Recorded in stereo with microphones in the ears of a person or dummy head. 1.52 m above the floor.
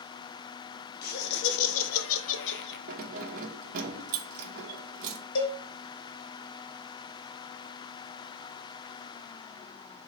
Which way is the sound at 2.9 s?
50° right (ahead or behind).